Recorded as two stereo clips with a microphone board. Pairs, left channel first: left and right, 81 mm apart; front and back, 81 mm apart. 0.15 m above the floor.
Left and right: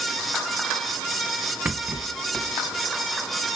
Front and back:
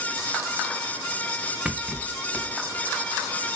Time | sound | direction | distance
1.6 | a rattle | 120° right | 1.1 m